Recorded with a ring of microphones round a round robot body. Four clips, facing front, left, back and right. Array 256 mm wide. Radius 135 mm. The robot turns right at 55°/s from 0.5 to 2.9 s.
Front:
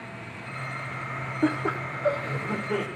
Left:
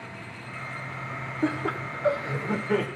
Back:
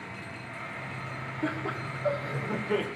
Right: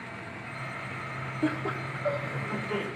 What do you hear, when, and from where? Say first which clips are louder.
1.4 s laughter: left 2 dB, front 7 dB; 25° left, 1.3 m; by 2.9 s 105° left, 1.3 m